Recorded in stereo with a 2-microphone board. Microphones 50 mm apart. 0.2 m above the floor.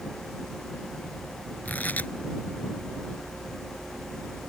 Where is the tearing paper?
35° left (ahead or behind).